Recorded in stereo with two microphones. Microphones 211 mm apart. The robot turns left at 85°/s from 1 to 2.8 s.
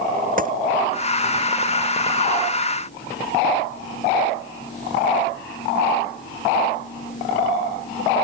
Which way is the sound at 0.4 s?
40° right (ahead or behind).